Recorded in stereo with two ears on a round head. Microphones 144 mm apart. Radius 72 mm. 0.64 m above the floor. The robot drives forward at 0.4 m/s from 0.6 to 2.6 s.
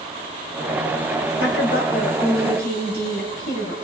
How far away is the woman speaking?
About 3 m.